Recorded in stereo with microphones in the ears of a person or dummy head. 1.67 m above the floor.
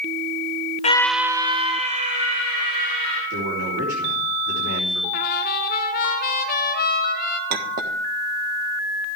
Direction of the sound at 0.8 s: 40° left (ahead or behind).